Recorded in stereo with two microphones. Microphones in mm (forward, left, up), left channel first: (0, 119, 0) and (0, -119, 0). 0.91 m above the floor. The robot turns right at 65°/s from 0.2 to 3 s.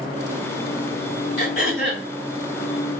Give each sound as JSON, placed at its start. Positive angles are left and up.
{"t": 1.4, "sound": "throat clearing", "azimuth_deg": 95, "distance_m": 1.9}